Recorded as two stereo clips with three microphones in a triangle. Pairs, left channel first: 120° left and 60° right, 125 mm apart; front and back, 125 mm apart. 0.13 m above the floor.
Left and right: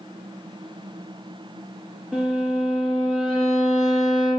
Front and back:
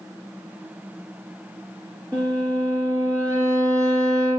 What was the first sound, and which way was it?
A violin, 165° right.